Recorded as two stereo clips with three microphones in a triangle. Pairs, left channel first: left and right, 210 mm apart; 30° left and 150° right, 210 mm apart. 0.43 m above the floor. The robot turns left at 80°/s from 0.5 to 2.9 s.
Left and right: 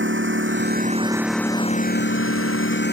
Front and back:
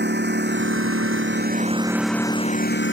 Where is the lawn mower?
115° right; by 2.9 s 55° left.